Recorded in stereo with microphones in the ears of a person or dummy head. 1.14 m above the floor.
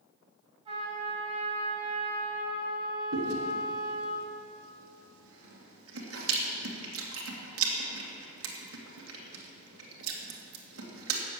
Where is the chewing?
75° right (ahead or behind), 2 m.